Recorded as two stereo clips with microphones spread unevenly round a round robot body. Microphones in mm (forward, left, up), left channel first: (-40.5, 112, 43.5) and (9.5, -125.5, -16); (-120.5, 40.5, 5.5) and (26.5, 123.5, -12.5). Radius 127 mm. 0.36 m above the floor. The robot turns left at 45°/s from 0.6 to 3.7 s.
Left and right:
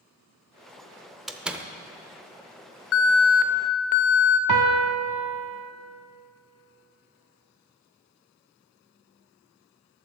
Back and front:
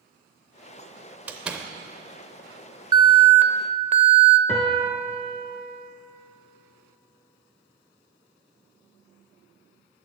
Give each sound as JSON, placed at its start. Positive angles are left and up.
{"t": 1.3, "sound": "a door slam", "azimuth_deg": -25, "distance_m": 0.6}
{"t": 2.9, "sound": "an alarm", "azimuth_deg": 75, "distance_m": 0.6}
{"t": 4.5, "sound": "a piano", "azimuth_deg": -65, "distance_m": 0.6}